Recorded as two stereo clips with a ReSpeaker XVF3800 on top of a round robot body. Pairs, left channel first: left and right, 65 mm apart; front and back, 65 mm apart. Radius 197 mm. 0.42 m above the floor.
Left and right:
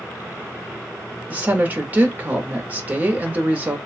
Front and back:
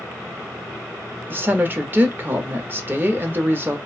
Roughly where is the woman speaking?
Behind right.